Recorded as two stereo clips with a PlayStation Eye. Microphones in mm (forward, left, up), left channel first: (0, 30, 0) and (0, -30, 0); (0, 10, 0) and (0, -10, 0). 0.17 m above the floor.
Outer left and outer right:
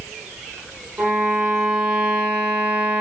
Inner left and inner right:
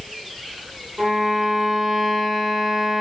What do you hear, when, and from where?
1.0 s a violin: 20° right (ahead or behind), 1.4 m